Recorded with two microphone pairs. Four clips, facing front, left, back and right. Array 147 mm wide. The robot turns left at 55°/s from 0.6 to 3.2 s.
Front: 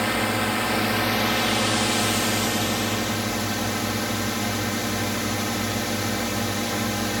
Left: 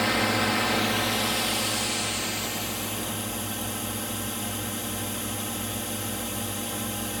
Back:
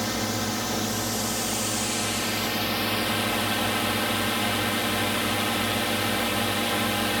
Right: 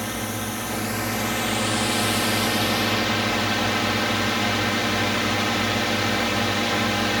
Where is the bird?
No bird in this recording.